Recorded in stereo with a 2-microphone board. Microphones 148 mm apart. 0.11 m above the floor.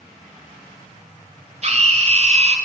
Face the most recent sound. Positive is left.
turn(degrees=-50)  # may be behind; listen again after turning